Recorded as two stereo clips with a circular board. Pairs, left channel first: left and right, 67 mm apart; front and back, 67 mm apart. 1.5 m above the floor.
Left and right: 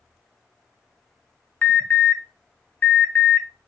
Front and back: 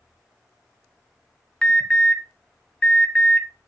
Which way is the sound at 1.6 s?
65° left.